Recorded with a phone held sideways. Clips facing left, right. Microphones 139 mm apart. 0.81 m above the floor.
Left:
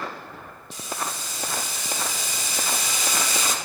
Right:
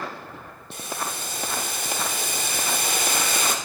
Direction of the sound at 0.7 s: 55° right (ahead or behind).